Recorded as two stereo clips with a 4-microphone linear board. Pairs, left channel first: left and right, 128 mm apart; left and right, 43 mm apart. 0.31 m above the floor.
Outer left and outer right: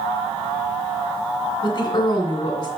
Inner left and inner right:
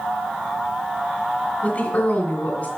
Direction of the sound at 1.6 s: 30° left (ahead or behind).